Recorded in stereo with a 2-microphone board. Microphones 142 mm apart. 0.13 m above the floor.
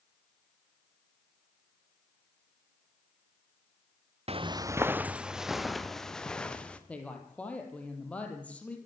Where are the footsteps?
45° right (ahead or behind), 0.6 m; by 6.8 s 10° left (ahead or behind), 2.5 m.